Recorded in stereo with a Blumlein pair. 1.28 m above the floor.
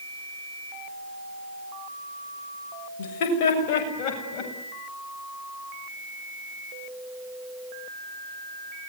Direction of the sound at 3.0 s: 50° left.